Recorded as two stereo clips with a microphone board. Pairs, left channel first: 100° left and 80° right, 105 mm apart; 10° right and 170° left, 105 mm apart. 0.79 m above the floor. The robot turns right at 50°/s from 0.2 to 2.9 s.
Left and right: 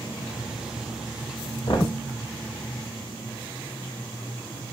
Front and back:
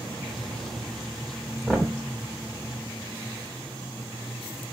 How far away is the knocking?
About 1.4 m.